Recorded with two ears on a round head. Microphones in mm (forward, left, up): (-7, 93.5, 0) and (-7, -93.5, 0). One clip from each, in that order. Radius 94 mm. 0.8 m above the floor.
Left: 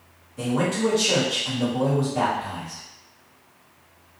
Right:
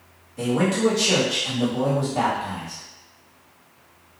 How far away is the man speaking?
About 1.2 m.